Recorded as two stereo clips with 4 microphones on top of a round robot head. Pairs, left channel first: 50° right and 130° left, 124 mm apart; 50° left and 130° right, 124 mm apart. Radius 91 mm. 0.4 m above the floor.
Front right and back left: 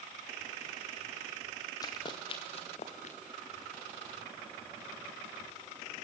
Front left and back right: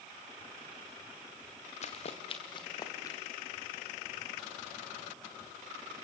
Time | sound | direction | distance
1.8 | running footsteps | 15° left | 2.5 m